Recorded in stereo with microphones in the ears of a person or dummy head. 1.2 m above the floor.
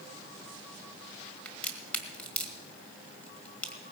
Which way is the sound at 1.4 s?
5° left (ahead or behind).